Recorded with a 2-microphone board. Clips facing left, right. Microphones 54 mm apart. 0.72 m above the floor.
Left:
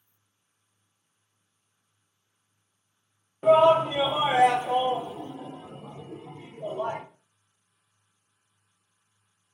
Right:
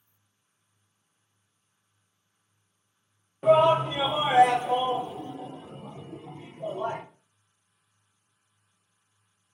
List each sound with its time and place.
3.4 s a shout: centre (ahead or behind), 0.9 m; by 7.0 s 15° left (ahead or behind), 1.3 m